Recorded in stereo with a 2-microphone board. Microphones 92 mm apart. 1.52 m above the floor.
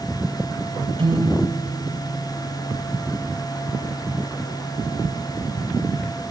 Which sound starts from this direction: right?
A piano, at 1.0 s.